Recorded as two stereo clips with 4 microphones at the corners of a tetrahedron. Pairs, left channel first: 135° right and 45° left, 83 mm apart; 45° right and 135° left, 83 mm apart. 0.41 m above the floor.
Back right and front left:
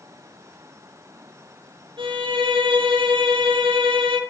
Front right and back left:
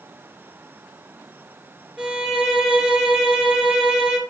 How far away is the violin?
About 3 m.